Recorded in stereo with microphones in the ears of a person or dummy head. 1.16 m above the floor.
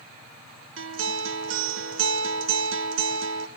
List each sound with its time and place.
0.8 s a guitar: 65° right (ahead or behind), 1.2 m